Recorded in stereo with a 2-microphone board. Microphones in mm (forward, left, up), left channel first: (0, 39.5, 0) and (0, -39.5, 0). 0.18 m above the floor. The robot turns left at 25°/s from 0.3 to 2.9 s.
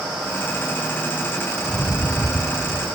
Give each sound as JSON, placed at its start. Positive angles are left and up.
{"t": 1.6, "sound": "a rattle", "azimuth_deg": 155, "distance_m": 0.7}